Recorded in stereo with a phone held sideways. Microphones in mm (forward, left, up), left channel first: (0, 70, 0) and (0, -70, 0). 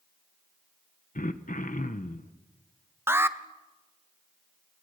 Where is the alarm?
15° right (ahead or behind), 1.1 m.